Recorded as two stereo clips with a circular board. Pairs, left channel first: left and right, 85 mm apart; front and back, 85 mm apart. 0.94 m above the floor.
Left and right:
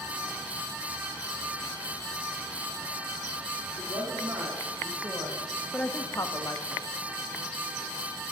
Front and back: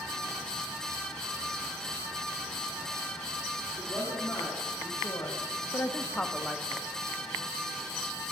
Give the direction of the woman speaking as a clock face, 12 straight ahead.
2 o'clock.